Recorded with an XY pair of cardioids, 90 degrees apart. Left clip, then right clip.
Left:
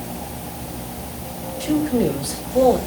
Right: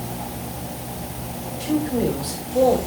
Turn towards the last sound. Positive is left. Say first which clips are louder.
# left 2 dB
turn(degrees=20)